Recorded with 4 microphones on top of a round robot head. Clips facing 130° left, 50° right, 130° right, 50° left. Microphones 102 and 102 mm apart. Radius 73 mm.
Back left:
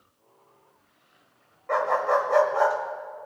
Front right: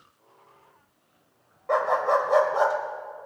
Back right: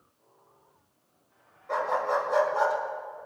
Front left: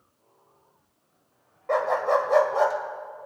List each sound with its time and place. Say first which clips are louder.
1.7 s a dog barking: front right 1 dB, front left 4 dB; 20° left, 1.6 m